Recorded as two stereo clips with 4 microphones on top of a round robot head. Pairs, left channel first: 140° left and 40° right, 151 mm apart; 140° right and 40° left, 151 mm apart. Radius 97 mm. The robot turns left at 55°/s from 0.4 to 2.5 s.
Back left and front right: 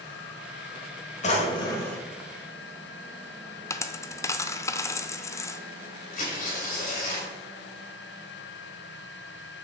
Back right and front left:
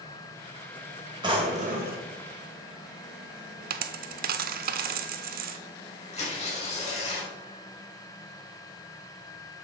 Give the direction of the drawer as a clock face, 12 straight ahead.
9 o'clock.